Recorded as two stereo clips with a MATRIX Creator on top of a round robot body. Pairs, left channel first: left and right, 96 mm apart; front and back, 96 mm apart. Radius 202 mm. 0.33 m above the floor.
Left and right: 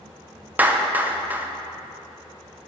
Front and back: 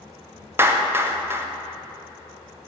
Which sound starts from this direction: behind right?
A clap, at 0.6 s.